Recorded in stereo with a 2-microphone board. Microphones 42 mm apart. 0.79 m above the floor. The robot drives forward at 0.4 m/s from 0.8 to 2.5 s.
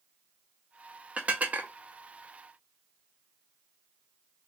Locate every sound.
1.2 s dishes clattering: 35° right (ahead or behind), 0.6 m; by 1.7 s 45° right (ahead or behind), 0.5 m